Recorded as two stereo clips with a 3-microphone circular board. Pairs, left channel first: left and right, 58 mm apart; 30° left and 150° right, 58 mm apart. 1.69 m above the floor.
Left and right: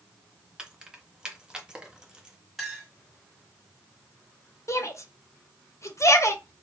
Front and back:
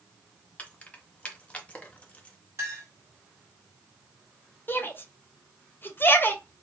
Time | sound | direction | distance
0.6 | keys jangling | 25° right | 0.7 m
2.6 | a clink | straight behind | 2 m
4.7 | a shout | 75° left | 0.7 m